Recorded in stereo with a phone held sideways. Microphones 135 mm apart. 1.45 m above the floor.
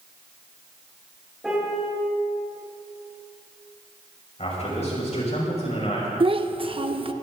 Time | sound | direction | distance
1.4 | a piano | centre (ahead or behind) | 7.5 m
4.4 | a man speaking | 55° left (ahead or behind) | 6 m
6.2 | a child speaking | 40° right (ahead or behind) | 0.9 m